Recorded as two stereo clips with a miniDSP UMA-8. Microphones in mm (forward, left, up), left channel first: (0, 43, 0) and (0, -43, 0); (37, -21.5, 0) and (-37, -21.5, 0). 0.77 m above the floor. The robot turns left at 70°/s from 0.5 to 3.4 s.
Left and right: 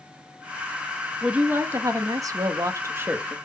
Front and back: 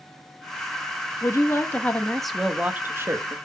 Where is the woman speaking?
15° right, 0.7 m; by 3.4 s 165° right, 0.7 m.